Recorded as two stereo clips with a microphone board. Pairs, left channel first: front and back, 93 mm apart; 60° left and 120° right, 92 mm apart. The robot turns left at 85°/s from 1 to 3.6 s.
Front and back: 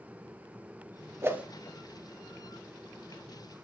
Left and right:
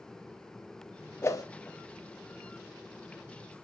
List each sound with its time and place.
1.2 s a whoosh: 120° left, 0.7 m; by 1.4 s 100° left, 0.7 m